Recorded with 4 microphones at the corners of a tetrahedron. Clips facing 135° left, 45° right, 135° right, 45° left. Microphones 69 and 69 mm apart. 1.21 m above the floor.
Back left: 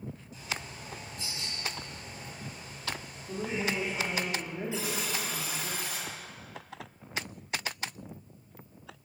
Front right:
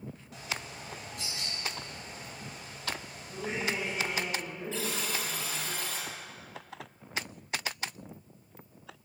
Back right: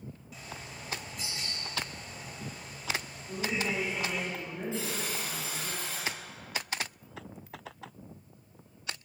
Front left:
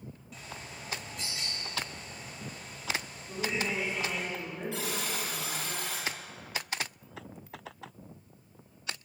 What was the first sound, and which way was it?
A bird, 45° right.